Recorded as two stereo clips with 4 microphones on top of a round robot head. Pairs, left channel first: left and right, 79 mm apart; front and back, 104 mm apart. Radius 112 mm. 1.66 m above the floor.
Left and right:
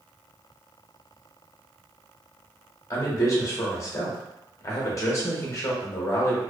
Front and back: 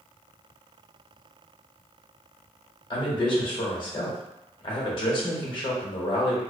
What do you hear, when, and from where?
2.9 s a man speaking: 40° left, 0.8 m